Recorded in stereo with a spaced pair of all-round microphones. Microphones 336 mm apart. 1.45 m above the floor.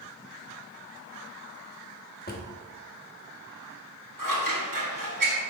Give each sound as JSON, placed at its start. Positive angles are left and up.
{"t": 2.3, "sound": "a drawer", "side_deg": 30, "distance_m": 1.0}
{"t": 4.2, "sound": "scissors", "side_deg": -70, "distance_m": 1.5}